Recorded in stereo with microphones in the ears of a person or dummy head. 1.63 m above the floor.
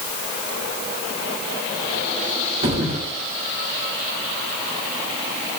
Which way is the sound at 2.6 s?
40° right (ahead or behind).